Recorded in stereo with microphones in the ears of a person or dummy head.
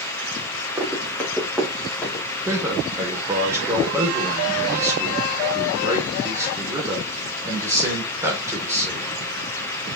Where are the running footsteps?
10° right (ahead or behind), 4.5 m; by 2.2 s 15° left (ahead or behind), 3.5 m.